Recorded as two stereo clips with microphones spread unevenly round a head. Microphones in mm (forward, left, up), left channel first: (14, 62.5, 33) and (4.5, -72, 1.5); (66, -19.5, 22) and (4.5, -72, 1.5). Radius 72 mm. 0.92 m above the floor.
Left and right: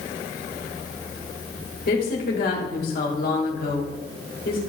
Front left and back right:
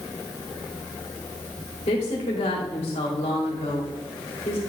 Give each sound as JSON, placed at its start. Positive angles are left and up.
{"t": 1.9, "sound": "a woman speaking", "azimuth_deg": 60, "distance_m": 2.5}